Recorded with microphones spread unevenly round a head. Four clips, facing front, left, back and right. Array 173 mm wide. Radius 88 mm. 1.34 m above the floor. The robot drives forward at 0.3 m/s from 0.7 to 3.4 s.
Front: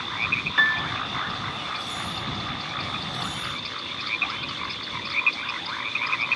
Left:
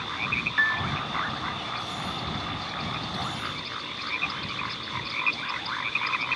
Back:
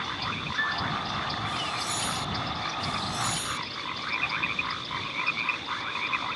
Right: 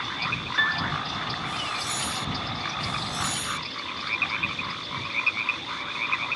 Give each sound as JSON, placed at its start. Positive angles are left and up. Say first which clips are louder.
{"t": 0.6, "sound": "a piano", "louder": "even, front 7 dB", "azimuth_deg": -15}